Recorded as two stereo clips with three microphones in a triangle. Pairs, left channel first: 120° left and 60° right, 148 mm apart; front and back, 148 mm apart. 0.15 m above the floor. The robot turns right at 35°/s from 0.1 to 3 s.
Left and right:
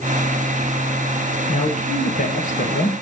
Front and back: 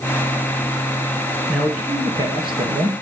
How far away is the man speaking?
About 2.5 m.